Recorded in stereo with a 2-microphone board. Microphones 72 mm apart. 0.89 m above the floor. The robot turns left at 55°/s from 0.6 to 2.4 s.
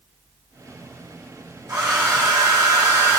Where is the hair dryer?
65° right, 1.1 m; by 3.2 s 105° right, 1.1 m.